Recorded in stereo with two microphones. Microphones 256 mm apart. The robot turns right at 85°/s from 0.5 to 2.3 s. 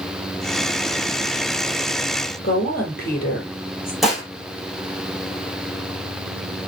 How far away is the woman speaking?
About 5.5 m.